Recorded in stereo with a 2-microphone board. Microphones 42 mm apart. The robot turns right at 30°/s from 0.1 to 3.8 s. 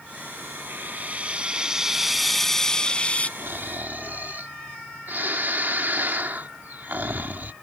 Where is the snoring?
65° right (ahead or behind); by 7.5 s 50° right (ahead or behind).